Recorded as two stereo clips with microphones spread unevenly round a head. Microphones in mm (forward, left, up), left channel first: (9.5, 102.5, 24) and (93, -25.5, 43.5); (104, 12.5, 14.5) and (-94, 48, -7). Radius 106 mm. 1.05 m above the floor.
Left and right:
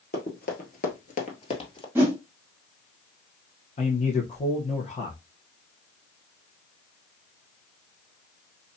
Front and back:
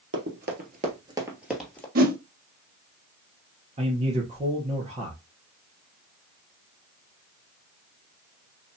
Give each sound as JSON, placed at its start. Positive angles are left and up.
{"t": 0.1, "sound": "running footsteps", "azimuth_deg": 160, "distance_m": 1.6}
{"t": 1.9, "sound": "a whoosh", "azimuth_deg": -135, "distance_m": 0.7}
{"t": 3.8, "sound": "a man speaking", "azimuth_deg": 125, "distance_m": 1.1}